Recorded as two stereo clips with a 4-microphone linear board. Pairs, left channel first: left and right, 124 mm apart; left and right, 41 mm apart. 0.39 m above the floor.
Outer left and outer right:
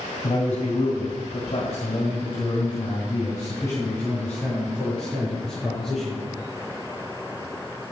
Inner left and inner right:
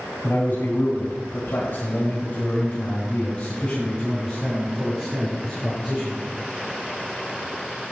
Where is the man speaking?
55° left (ahead or behind), 3 m; by 6.2 s centre (ahead or behind), 5 m.